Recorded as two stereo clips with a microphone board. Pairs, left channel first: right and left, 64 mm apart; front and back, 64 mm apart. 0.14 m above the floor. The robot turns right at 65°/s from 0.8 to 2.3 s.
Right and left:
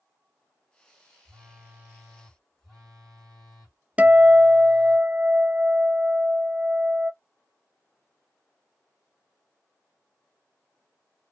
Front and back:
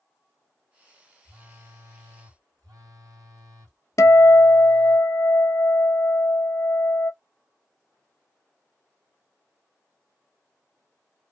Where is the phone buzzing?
120° left, 1.7 m; by 5.0 s 175° right, 1.7 m.